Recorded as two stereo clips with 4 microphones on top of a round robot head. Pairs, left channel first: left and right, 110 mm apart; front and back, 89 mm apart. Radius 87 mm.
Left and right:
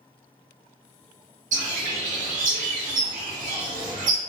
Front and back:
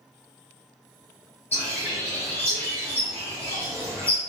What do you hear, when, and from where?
1.5 s a bird: 80° right, 0.7 m